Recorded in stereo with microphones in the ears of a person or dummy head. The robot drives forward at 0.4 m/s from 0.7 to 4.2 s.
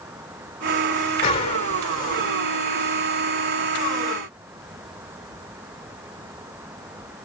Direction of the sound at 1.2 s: 35° left (ahead or behind).